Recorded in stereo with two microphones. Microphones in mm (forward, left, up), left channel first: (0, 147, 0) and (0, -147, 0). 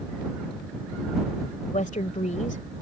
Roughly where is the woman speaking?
Left.